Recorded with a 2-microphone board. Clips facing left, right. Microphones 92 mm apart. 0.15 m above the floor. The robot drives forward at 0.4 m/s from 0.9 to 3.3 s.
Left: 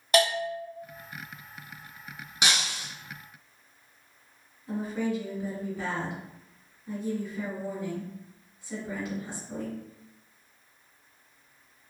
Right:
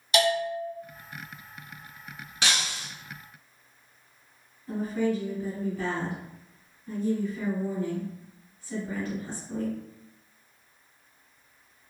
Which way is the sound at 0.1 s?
45° left (ahead or behind).